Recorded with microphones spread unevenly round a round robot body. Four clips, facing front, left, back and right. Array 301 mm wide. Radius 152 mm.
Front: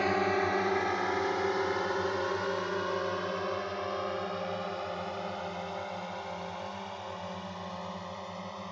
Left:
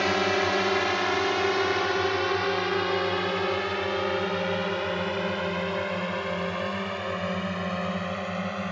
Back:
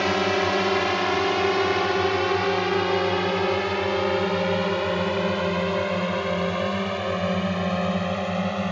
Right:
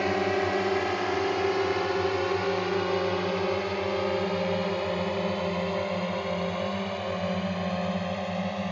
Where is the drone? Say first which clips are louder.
Left 1 dB, back 6 dB; 175° left.